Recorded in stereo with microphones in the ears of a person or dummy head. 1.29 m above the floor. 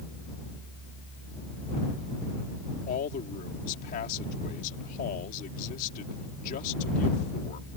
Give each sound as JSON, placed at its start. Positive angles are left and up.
{"t": 2.9, "sound": "a man speaking", "side_deg": 50}